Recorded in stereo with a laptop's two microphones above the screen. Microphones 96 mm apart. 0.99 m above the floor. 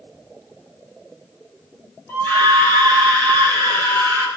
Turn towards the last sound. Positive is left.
turn(degrees=25)  # may be behind; listen again after turning